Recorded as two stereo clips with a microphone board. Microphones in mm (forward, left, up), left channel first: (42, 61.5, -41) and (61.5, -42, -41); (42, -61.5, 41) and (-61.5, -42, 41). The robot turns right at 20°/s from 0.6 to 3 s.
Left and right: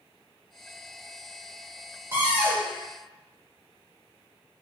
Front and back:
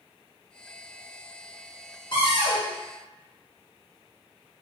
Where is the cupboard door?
20° right, 1.0 m; by 2.7 s 5° right, 1.0 m.